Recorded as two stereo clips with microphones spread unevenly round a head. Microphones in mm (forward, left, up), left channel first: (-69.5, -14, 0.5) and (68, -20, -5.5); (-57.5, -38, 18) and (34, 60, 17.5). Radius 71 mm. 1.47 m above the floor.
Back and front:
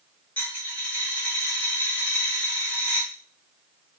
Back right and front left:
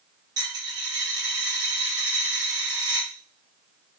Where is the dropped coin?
105° left, 1.3 m.